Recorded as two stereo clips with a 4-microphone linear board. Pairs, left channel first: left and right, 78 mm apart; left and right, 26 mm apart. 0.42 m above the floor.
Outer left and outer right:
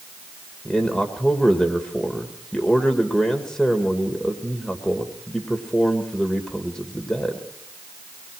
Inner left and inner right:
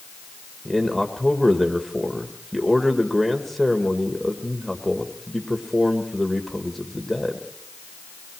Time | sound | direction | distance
0.7 | a man speaking | 10° left (ahead or behind) | 1.6 m